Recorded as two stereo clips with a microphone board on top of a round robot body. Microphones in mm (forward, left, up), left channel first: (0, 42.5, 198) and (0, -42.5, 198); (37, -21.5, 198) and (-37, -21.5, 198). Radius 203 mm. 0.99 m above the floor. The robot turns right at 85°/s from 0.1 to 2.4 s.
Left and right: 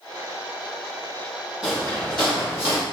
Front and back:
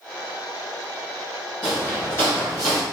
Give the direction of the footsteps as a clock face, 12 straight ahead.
12 o'clock.